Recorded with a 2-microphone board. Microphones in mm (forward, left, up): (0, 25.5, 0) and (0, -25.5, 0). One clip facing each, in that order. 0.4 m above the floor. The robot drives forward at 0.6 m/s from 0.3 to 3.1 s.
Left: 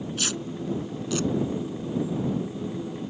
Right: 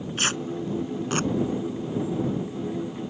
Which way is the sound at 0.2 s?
40° right (ahead or behind).